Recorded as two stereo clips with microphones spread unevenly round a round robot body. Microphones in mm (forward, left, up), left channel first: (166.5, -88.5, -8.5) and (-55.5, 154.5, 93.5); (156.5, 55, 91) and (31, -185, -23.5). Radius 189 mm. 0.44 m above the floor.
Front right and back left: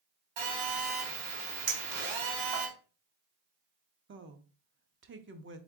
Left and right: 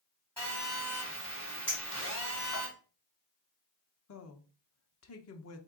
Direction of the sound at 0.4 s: 155° left.